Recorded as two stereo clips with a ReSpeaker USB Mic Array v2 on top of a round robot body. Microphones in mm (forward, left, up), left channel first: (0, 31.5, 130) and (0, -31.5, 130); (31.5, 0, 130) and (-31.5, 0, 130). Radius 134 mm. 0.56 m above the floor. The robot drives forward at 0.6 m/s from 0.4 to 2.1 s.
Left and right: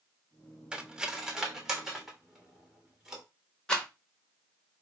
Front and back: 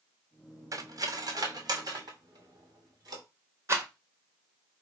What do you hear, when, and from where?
0.7 s cutlery clinking: 165° right, 0.7 m; by 3.2 s 175° right, 1.4 m
3.7 s a rattle: 160° left, 1.2 m